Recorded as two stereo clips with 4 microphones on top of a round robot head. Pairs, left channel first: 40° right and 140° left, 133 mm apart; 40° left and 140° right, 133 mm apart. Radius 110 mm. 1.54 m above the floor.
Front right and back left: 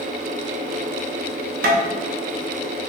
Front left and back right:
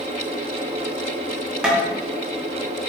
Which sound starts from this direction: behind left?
Tapping, at 1.6 s.